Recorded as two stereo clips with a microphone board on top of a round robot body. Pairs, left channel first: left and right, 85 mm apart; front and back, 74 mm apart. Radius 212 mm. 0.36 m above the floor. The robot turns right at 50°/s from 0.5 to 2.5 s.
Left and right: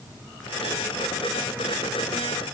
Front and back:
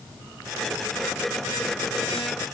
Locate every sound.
Only background noise.